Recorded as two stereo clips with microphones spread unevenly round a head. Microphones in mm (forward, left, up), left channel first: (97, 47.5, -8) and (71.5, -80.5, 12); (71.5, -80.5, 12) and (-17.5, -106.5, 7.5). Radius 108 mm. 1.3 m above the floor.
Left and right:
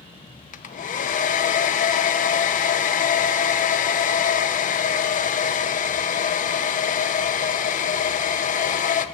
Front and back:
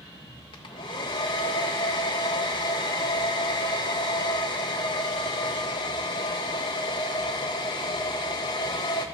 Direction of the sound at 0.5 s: 60° left.